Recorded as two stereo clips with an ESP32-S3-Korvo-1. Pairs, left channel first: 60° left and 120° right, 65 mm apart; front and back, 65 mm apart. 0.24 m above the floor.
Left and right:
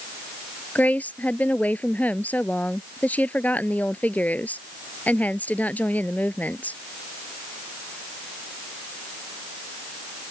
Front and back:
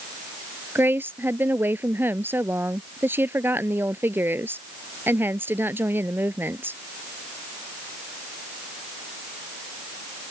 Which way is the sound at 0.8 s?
125° left.